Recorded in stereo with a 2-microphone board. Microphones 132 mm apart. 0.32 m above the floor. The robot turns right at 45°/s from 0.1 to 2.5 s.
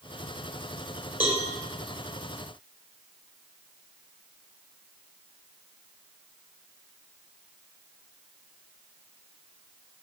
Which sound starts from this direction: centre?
A cowbell, at 1.2 s.